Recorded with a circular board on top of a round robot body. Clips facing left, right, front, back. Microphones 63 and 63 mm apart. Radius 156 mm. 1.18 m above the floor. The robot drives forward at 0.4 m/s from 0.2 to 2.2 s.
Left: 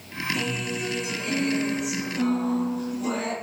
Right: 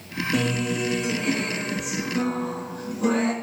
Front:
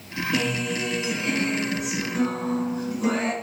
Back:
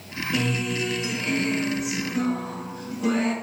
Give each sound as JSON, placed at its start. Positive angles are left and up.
{"t": 0.3, "sound": "a guitar", "azimuth_deg": -65, "distance_m": 7.5}